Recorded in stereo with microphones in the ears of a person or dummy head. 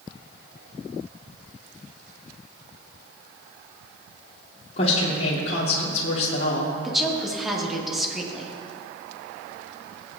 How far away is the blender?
No blender in this recording.